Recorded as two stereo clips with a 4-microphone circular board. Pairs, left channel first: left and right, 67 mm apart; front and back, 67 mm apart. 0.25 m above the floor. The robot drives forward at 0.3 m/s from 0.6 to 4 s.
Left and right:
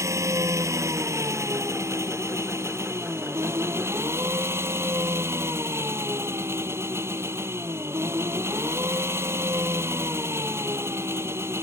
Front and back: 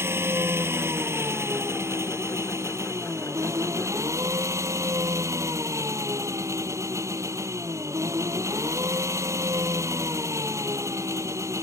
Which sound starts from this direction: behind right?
An engine running, at 0.0 s.